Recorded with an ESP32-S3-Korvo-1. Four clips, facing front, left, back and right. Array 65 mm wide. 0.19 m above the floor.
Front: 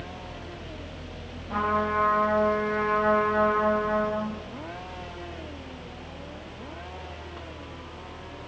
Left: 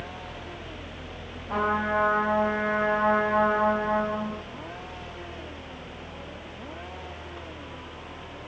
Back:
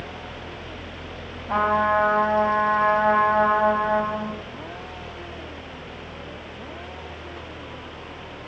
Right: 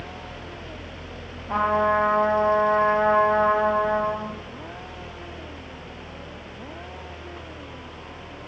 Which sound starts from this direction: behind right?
A trumpet, at 1.5 s.